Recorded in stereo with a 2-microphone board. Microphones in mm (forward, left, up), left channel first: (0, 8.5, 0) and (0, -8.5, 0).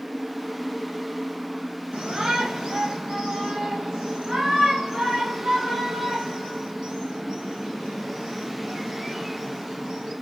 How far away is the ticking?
I don't hear ticking.